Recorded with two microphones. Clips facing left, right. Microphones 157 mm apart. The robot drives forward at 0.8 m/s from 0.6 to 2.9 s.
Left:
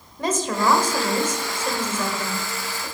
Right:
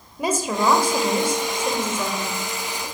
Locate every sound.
0.2 s a woman speaking: 10° right (ahead or behind), 1.5 m